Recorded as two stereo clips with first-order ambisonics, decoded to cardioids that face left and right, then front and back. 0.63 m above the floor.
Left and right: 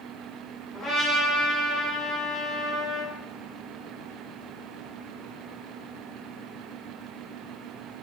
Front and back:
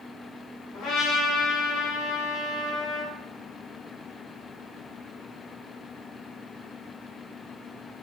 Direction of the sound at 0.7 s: 25° left.